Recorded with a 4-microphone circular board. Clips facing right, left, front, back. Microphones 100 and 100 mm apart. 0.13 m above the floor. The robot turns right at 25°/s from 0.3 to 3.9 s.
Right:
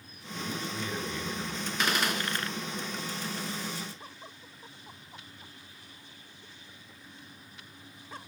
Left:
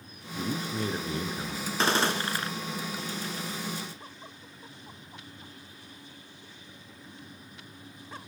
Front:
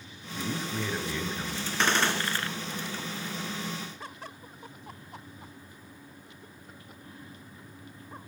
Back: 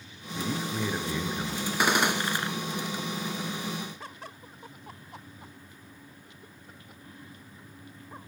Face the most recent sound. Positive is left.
turn(degrees=165)